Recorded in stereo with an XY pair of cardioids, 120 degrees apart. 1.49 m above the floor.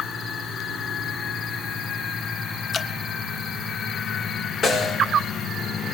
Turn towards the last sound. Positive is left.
turn(degrees=45)